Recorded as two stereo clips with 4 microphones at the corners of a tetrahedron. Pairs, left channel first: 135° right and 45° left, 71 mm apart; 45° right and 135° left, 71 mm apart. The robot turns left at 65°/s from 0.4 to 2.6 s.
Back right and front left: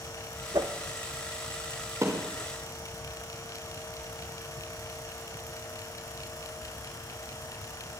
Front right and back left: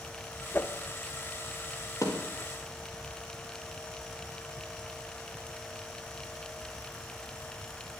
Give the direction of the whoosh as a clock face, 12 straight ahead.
11 o'clock.